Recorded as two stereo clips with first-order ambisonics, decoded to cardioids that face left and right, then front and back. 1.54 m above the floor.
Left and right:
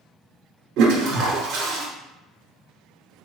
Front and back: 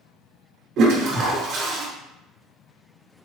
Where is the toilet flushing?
125° right, 0.8 m.